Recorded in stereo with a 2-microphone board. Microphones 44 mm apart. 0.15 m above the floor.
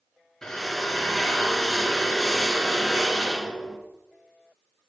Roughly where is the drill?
Centre.